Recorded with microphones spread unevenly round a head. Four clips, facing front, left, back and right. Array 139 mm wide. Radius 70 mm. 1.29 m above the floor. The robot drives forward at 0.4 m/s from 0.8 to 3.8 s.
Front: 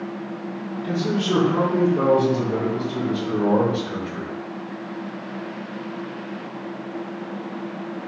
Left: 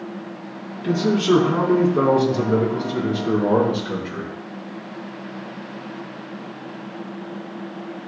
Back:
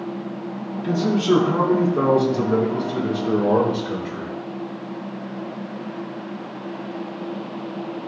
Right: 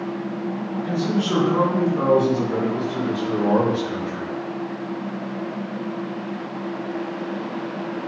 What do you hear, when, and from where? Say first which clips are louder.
0.8 s a man speaking: left 6 dB, back 5 dB; 115° left, 4 m; by 4.3 s 125° left, 4.5 m